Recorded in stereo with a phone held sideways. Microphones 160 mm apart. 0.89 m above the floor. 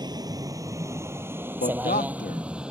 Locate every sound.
0.0 s a vehicle: 25° right (ahead or behind); by 2.7 s 5° right (ahead or behind)
1.6 s a man speaking: 70° left (ahead or behind)